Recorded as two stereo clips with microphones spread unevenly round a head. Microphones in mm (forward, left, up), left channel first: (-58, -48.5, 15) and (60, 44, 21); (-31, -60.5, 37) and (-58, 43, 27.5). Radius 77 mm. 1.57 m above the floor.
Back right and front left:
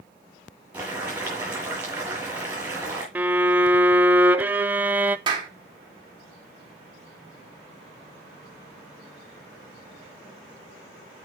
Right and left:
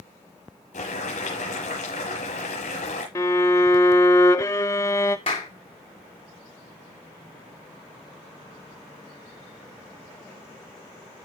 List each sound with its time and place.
0.7 s boiling: 40° right, 7.5 m
3.1 s a violin: 30° right, 0.5 m
5.3 s a clap: 20° right, 2.5 m